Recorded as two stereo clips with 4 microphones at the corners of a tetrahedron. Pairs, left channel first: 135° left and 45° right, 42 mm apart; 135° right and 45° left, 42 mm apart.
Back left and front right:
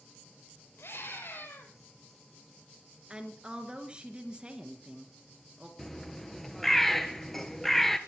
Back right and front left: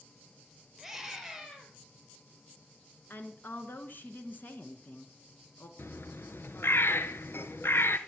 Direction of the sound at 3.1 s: 110° right.